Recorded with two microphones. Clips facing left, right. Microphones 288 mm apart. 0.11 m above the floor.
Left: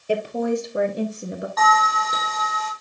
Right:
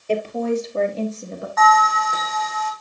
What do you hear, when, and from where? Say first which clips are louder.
0.1 s a woman speaking: right 1 dB; 15° left (ahead or behind), 1.8 m; by 1.5 s 20° left (ahead or behind), 1.2 m
1.6 s a bell: right 6 dB; 45° left (ahead or behind), 4 m